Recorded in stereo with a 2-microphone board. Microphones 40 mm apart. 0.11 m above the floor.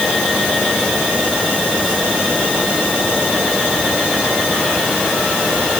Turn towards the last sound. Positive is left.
No sound to turn to.